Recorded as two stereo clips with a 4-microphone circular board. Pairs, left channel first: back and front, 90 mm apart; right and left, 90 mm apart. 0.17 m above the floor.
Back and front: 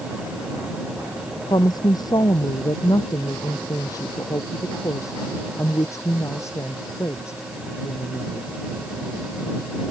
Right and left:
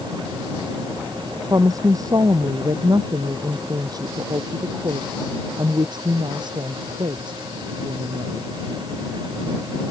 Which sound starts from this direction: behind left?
A woman speaking, at 1.5 s.